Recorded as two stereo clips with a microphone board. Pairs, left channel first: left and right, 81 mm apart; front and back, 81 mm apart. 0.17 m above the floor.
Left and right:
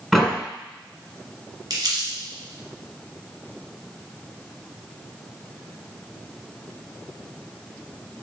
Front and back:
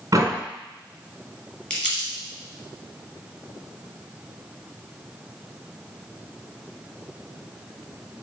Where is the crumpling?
70° right, 1.9 m.